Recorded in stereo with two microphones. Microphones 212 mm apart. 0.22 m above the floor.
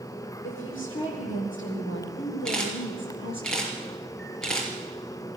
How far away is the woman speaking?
About 10 m.